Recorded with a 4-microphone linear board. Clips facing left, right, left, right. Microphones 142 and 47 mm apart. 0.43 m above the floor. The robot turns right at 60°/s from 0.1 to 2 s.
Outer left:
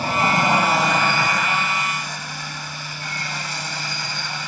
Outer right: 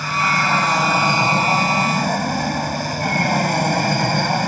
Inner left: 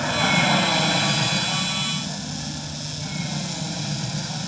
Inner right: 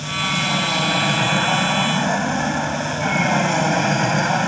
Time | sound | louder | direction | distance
0.0 | an aircraft | outer left 2 dB, inner left 2 dB | 140° left | ?